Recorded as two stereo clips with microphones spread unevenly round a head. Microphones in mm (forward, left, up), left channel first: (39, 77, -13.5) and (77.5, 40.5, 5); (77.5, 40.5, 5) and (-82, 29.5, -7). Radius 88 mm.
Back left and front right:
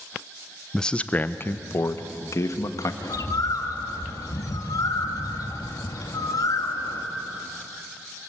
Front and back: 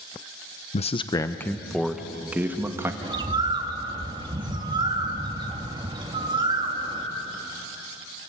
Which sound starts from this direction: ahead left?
A man speaking, at 0.7 s.